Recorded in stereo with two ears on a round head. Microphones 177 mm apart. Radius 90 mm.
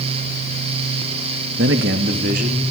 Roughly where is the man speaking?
Right.